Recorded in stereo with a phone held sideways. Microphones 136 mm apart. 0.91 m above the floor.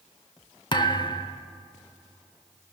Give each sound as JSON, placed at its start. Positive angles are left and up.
{"t": 0.7, "sound": "a thud", "side_deg": 35, "distance_m": 0.7}